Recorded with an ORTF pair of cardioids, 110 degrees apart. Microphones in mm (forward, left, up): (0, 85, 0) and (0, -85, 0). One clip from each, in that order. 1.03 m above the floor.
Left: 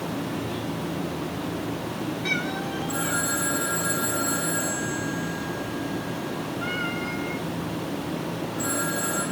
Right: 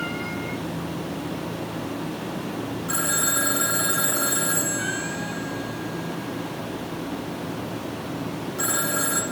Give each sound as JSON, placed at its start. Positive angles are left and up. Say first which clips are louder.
{"t": 2.9, "sound": "a phone ringing", "louder": "right 3 dB", "azimuth_deg": -50, "distance_m": 6.0}